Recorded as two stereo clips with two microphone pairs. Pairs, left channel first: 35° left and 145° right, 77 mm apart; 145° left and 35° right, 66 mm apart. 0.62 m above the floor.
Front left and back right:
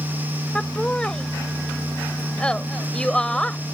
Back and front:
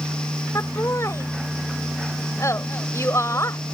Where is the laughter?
110° left.